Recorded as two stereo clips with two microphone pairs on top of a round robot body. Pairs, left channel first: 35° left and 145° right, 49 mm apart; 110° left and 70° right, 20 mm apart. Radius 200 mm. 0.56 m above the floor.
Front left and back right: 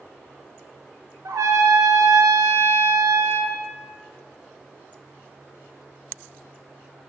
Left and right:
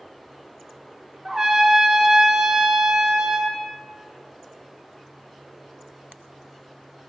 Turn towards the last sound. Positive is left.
turn(degrees=-140)